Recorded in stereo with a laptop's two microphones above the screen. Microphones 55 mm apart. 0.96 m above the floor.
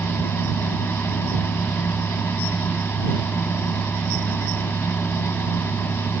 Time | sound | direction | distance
0.0 | a fan | 45° left (ahead or behind) | ?